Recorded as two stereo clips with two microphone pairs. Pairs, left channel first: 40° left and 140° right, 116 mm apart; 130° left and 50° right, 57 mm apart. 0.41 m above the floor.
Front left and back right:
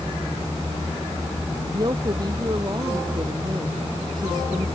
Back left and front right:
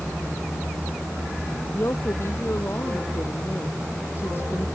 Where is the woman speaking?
170° left.